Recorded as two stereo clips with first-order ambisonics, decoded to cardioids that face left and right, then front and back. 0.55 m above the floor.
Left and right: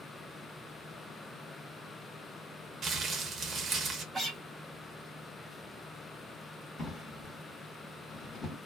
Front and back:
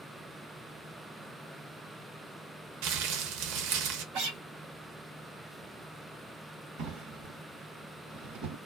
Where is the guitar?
170° right, 1.4 m.